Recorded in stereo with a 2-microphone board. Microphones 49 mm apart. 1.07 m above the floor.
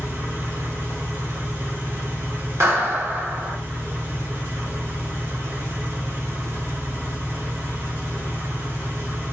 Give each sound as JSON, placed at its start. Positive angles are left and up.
{"t": 0.0, "sound": "an engine running", "side_deg": -80, "distance_m": 3.0}
{"t": 2.6, "sound": "a clap", "side_deg": -85, "distance_m": 1.3}